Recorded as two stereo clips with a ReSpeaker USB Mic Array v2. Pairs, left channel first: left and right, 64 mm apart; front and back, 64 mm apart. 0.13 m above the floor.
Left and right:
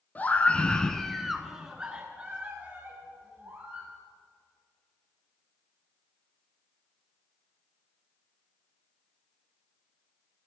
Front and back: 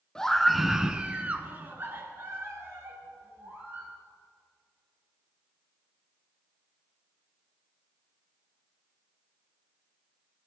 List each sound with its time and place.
0.1 s a scream: 70° left, 1.1 m; by 3.9 s 145° right, 2.5 m